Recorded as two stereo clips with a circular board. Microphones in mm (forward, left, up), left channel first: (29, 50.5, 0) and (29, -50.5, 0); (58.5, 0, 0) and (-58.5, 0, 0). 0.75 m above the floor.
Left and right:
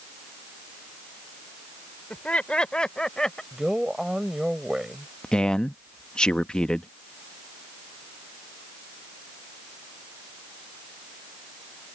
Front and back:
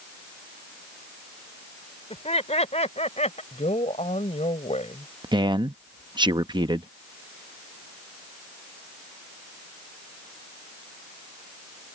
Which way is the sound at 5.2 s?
165° left.